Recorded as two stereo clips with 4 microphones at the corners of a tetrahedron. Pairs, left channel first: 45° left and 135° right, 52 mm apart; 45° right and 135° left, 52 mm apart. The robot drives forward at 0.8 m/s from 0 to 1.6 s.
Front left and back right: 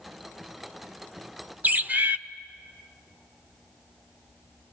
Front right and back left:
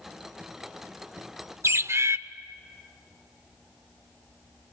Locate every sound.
1.6 s a bird: 165° left, 0.6 m